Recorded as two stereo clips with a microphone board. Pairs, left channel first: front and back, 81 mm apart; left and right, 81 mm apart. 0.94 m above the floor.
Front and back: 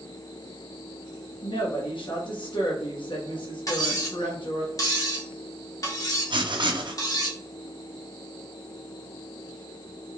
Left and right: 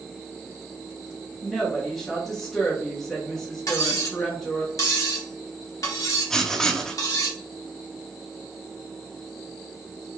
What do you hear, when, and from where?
1.4 s a woman speaking: straight ahead, 1.0 m
3.7 s cutlery clinking: 45° left, 1.2 m
6.3 s writing: 170° left, 0.7 m